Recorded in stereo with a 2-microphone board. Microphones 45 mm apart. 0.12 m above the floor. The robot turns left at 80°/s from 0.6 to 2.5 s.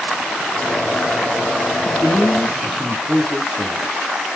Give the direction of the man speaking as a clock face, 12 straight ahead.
4 o'clock.